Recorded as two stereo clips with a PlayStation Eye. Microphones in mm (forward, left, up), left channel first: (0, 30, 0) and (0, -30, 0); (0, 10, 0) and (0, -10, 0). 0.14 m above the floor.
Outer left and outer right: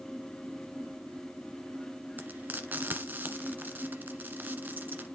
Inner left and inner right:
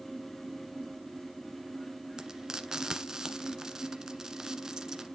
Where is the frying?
30° right (ahead or behind), 1.3 m.